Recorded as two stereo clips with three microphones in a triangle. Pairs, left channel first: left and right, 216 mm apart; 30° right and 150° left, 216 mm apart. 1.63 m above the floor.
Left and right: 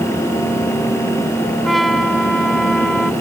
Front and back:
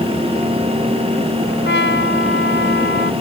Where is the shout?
I don't hear a shout.